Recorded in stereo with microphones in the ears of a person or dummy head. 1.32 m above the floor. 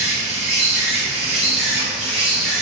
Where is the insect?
5° right (ahead or behind), 1.6 m.